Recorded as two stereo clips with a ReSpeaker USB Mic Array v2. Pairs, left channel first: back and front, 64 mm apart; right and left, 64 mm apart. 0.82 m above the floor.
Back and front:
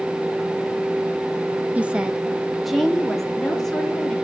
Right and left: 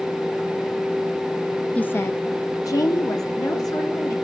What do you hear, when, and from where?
1.8 s a woman speaking: 40° right, 0.6 m; by 4.2 s 95° right, 2.5 m